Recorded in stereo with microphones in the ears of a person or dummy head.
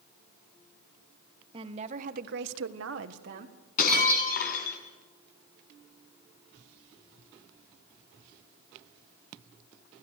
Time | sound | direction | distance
1.5 | a woman speaking | 30° right (ahead or behind) | 2 m
3.8 | breaking glass | 55° left (ahead or behind) | 4.5 m